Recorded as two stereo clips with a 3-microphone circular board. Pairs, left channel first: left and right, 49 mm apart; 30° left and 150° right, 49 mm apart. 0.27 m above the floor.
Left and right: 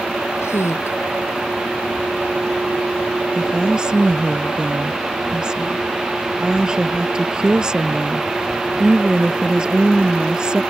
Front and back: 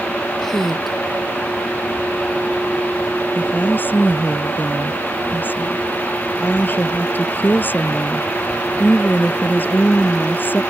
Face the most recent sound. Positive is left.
turn(degrees=-15)